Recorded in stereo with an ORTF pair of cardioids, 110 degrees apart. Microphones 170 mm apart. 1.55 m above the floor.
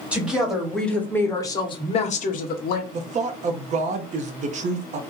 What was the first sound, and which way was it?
A woman speaking, 5° right.